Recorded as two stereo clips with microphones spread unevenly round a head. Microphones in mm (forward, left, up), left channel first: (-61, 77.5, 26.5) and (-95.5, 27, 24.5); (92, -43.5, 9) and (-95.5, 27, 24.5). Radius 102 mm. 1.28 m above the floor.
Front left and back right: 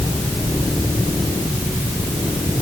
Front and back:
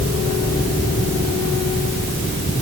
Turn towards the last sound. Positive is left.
No sound to turn to.